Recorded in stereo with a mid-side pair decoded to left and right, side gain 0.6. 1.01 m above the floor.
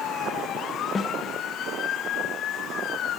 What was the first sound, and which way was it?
A snare drum, 30° left.